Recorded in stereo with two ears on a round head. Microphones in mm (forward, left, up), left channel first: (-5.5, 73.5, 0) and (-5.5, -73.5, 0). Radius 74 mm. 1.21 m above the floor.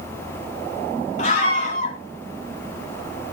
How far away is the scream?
About 3.5 m.